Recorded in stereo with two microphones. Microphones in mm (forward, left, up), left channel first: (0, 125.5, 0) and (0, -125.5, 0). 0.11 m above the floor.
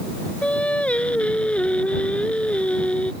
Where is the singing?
5° left (ahead or behind).